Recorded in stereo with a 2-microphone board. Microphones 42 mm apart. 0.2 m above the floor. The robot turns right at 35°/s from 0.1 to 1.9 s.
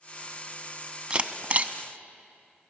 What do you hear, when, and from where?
1.1 s a camera shutter: 25° right (ahead or behind), 0.6 m; by 1.7 s 40° right (ahead or behind), 0.6 m